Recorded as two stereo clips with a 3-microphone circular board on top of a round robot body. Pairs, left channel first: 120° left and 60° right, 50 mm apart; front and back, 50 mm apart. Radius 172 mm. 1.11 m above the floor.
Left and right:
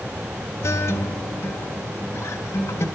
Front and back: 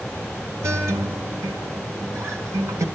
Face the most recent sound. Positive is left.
turn(degrees=150)